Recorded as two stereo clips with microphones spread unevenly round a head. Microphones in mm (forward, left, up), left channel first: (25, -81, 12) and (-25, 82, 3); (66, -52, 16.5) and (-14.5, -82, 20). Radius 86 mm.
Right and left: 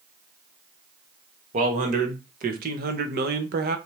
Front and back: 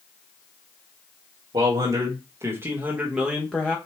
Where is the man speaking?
150° left, 1.6 m; by 3.8 s 95° left, 1.0 m.